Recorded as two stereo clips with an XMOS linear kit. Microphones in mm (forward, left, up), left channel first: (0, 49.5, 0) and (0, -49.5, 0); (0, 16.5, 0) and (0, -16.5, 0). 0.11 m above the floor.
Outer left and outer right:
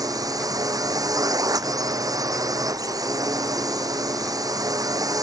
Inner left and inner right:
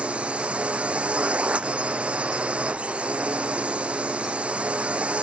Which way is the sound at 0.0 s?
35° right (ahead or behind).